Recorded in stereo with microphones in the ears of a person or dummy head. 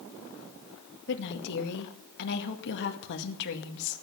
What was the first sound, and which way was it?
A woman speaking, 65° left (ahead or behind).